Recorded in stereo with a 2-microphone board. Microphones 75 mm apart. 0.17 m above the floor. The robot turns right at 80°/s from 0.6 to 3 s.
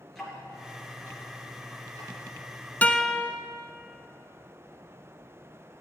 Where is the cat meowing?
No cat meowing in this recording.